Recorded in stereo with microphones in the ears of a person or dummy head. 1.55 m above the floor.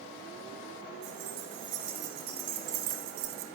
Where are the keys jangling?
60° right (ahead or behind), 3 m; by 3.5 s 70° right (ahead or behind), 1.4 m.